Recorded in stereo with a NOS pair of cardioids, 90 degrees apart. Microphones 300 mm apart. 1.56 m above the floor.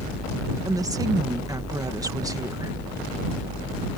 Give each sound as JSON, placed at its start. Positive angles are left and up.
{"t": 0.7, "sound": "a woman speaking", "azimuth_deg": -10}